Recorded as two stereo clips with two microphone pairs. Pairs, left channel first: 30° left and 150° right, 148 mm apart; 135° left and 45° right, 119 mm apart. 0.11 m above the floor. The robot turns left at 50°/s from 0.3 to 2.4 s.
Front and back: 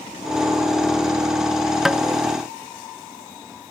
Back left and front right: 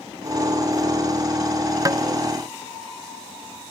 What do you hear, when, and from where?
1.9 s tapping: 60° right, 0.5 m; by 2.0 s 70° right, 0.5 m